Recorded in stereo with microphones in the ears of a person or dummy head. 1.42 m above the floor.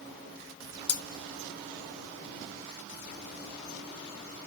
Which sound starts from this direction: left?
Cutlery clinking, at 0.9 s.